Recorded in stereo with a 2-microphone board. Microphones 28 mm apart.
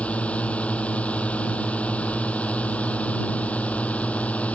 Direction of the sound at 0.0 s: 60° left (ahead or behind).